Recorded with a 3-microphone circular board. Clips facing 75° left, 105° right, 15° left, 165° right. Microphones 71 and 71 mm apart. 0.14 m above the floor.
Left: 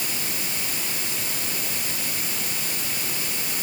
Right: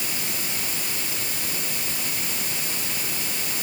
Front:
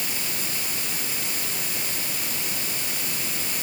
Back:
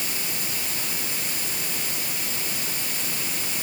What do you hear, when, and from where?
Only background noise.